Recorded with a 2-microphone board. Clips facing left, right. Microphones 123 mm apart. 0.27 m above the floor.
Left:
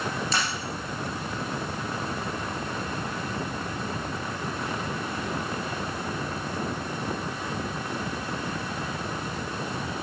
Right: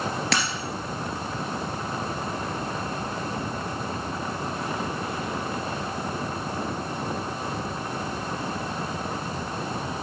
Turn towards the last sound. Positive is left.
turn(degrees=-80)